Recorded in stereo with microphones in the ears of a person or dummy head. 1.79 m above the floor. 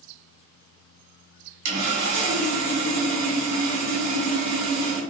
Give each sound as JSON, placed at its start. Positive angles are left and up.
{"t": 1.6, "sound": "sawing", "side_deg": -65, "distance_m": 1.3}